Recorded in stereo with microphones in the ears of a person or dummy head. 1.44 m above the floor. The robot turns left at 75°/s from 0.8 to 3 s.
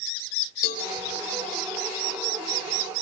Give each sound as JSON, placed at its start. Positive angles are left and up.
{"t": 0.6, "sound": "a cowbell", "side_deg": 50, "distance_m": 2.5}